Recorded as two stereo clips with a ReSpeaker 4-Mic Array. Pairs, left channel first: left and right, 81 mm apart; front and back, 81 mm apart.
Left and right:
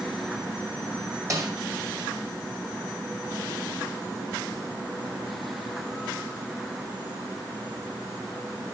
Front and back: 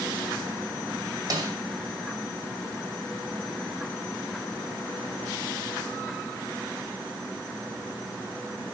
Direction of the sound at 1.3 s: 135° right.